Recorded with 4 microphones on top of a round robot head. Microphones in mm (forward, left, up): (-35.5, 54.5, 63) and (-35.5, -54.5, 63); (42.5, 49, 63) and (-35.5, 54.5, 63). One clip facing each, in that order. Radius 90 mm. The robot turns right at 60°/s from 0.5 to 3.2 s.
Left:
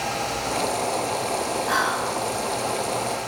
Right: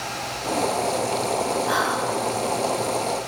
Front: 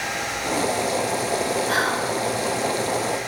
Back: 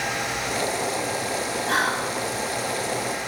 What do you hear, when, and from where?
1.7 s whispering: 170° right, 1.1 m; by 2.1 s 145° right, 1.1 m